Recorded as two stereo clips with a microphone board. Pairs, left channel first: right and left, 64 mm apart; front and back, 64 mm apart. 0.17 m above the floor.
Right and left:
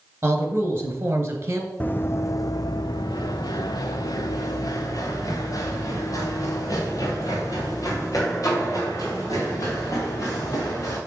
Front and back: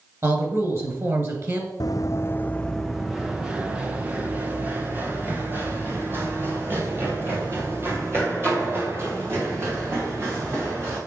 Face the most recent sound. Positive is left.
turn(degrees=-125)